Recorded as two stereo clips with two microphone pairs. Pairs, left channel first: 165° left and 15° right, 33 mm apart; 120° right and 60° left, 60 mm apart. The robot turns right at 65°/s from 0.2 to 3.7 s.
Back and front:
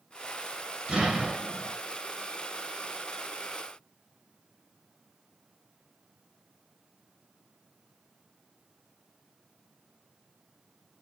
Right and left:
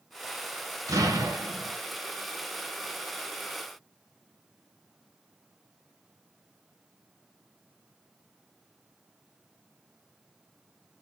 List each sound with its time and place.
0.9 s an explosion: 45° left, 2.5 m; by 1.8 s 100° left, 2.5 m